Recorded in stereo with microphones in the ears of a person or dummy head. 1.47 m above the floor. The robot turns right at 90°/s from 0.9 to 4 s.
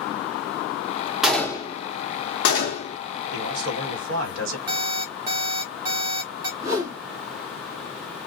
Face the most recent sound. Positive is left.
turn(degrees=-15)  # may be behind; listen again after turning